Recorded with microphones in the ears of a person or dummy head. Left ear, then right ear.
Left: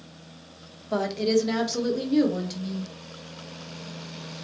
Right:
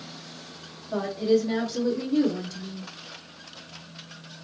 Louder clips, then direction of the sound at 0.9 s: Even; 70° left (ahead or behind).